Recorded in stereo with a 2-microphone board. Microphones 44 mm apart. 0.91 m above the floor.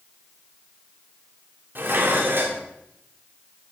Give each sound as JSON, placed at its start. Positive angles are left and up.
{"t": 1.8, "sound": "dishes clattering", "side_deg": -60, "distance_m": 1.8}